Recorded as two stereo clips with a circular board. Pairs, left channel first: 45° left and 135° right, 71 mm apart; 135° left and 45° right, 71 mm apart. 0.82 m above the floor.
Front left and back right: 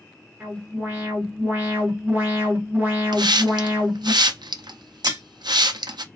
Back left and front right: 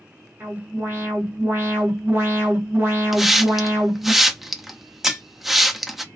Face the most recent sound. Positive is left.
turn(degrees=-130)